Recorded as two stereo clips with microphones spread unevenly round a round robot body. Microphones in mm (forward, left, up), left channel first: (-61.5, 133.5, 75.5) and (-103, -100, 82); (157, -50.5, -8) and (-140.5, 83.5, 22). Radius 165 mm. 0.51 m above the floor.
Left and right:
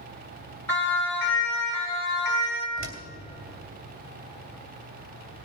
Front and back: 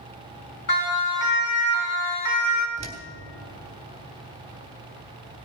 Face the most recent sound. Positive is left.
turn(degrees=-130)